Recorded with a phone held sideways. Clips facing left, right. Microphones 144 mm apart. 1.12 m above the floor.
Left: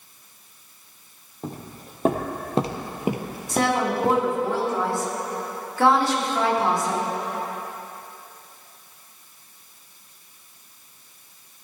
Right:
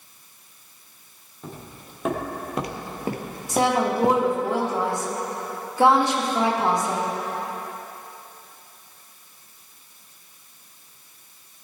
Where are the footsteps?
40° left (ahead or behind), 2 m; by 4.4 s 25° right (ahead or behind), 1.4 m.